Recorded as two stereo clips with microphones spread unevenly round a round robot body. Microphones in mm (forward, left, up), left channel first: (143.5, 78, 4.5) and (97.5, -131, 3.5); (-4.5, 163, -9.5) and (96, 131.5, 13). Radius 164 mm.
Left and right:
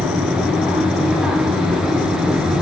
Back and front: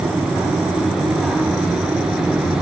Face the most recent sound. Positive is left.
No sound to turn to.